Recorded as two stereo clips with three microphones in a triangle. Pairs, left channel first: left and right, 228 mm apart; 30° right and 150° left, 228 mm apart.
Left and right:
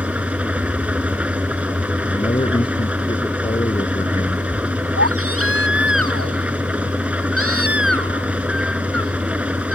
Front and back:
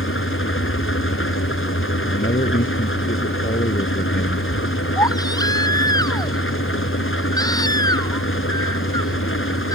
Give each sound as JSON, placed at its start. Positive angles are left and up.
{"t": 0.0, "sound": "an engine running", "azimuth_deg": -5}
{"t": 2.1, "sound": "a man speaking", "azimuth_deg": 20}
{"t": 5.0, "sound": "a baby crying", "azimuth_deg": -105}